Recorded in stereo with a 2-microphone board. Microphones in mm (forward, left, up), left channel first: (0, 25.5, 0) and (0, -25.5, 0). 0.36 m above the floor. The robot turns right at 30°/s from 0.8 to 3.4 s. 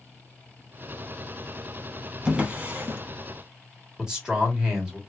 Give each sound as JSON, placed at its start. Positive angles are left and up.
{"t": 2.2, "sound": "a drawer", "side_deg": -20, "distance_m": 0.8}
{"t": 4.0, "sound": "a man speaking", "side_deg": -15, "distance_m": 1.3}